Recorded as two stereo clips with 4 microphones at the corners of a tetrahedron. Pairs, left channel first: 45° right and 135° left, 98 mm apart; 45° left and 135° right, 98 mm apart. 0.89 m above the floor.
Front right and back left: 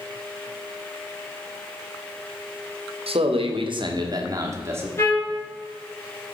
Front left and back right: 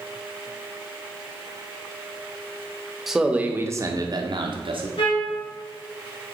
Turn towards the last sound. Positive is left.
turn(degrees=20)